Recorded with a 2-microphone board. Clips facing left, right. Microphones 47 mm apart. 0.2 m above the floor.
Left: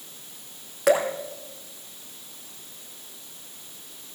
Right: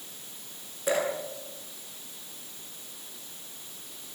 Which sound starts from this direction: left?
Dripping, at 0.9 s.